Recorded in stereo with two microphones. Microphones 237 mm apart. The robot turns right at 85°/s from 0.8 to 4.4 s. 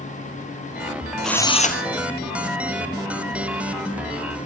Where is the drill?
Straight ahead, 1.3 m; by 1.8 s 50° left, 1.3 m.